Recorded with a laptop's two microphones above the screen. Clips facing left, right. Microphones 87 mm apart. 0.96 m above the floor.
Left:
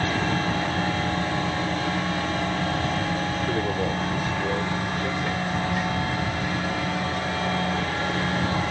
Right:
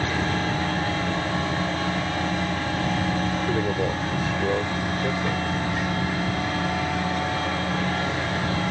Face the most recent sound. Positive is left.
turn(degrees=-25)  # may be behind; listen again after turning